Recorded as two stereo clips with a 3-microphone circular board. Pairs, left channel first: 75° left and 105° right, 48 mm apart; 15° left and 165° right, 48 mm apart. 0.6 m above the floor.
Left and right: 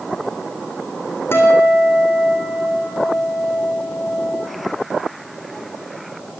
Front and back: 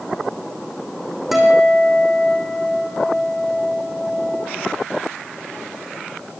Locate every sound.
1.3 s a guitar: 110° left, 5.5 m